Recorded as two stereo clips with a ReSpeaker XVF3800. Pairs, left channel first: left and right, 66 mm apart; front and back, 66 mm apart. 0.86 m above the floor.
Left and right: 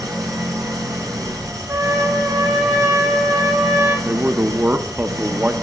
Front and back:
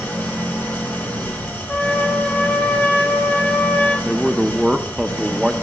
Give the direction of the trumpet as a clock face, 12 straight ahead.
2 o'clock.